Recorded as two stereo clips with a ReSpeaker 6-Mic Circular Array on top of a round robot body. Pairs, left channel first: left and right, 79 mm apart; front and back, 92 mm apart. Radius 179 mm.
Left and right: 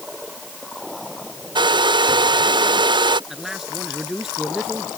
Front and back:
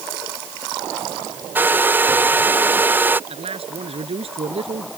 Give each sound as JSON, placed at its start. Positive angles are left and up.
{"t": 1.6, "sound": "a hair dryer", "azimuth_deg": -110}
{"t": 3.3, "sound": "a man speaking", "azimuth_deg": -175}